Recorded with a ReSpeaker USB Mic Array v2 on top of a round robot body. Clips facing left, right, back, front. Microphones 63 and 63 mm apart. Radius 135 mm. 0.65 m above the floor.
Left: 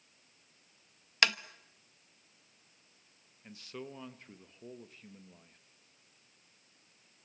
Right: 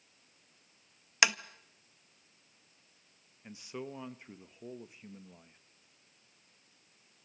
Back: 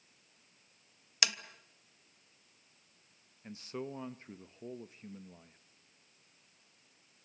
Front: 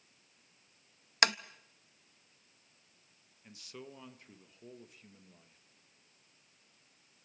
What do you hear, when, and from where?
1.2 s tapping: 15° right, 0.9 m
3.4 s a man speaking: 155° right, 1.3 m